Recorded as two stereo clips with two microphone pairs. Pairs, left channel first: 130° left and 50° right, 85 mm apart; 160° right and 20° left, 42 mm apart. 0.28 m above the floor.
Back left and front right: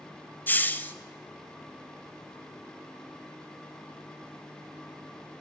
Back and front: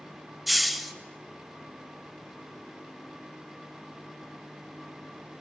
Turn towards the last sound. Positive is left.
turn(degrees=100)